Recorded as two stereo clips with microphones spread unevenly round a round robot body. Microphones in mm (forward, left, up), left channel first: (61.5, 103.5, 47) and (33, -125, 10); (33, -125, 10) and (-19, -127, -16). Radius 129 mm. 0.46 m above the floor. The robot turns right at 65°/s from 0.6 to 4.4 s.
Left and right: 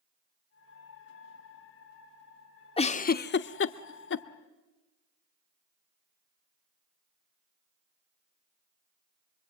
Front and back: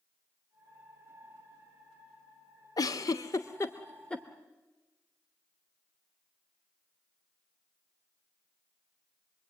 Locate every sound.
2.8 s a giggle: 15° left, 0.7 m; by 4.2 s 110° left, 0.7 m